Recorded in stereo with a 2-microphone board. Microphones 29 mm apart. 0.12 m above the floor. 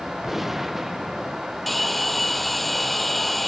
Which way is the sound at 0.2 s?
5° right (ahead or behind).